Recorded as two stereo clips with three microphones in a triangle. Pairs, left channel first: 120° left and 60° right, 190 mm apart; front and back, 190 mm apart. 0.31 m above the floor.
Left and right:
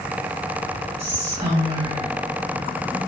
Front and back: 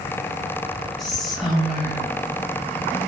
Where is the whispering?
90° right, 1.5 m.